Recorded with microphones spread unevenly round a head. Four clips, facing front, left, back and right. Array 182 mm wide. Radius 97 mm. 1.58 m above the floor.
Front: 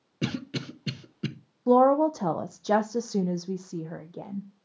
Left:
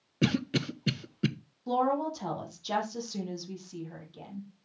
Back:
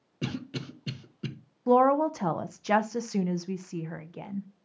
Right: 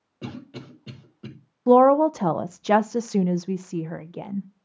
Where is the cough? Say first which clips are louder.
Left 8 dB, front 3 dB; 60° left, 1.1 m.